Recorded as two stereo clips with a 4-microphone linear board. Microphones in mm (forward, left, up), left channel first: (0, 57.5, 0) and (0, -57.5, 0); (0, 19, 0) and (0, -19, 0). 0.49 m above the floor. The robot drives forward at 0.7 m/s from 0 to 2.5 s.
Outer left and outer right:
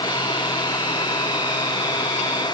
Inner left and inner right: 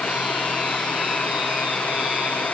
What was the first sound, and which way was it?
Only background noise.